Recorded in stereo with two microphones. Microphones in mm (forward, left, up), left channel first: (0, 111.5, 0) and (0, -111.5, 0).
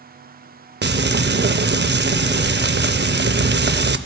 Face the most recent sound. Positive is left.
turn(degrees=-50)  # may be behind; listen again after turning